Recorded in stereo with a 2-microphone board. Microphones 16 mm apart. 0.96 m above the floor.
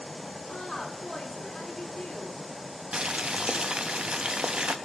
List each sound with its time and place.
0.5 s a woman speaking: 60° left (ahead or behind), 2 m
2.9 s boiling: 70° right (ahead or behind), 0.7 m